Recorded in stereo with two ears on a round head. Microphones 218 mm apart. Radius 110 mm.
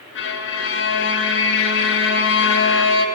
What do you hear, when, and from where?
0.1 s a violin: 50° left (ahead or behind), 0.8 m